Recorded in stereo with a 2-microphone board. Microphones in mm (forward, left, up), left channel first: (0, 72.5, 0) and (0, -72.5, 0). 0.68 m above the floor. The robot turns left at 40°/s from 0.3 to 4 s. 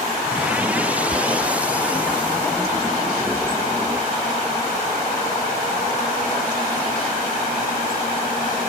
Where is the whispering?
10° right (ahead or behind), 0.6 m.